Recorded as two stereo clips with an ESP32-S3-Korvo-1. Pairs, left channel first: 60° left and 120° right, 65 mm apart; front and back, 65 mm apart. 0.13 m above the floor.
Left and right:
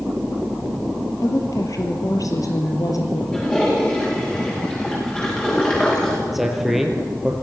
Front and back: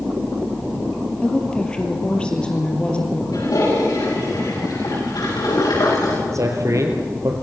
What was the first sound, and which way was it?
A woman speaking, 75° left.